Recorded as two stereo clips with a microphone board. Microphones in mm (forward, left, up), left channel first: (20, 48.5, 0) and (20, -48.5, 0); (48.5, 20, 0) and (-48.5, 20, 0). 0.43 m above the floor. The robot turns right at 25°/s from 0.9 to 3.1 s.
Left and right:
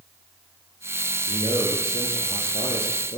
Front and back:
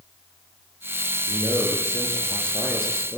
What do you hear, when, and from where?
1.3 s a man speaking: 50° left, 7 m; by 3.2 s 100° left, 7 m